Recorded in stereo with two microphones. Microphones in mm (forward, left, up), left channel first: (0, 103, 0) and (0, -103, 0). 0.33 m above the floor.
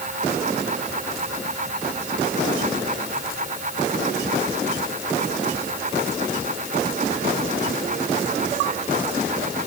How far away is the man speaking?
No man speaking in this recording.